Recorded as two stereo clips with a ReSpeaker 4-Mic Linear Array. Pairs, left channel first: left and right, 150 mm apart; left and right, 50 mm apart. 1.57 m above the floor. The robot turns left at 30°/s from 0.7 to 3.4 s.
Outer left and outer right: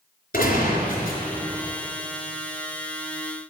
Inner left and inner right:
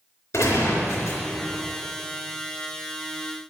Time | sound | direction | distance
0.3 | a gunshot | 80° left | 3.5 m